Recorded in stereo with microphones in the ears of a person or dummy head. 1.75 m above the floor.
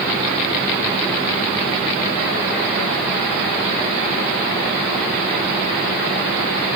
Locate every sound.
Only background noise.